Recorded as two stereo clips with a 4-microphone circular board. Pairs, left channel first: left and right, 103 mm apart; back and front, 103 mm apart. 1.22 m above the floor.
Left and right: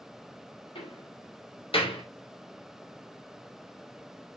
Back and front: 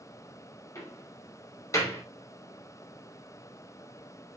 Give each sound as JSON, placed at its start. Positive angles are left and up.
{"t": 0.8, "sound": "a door slam", "azimuth_deg": 120, "distance_m": 3.5}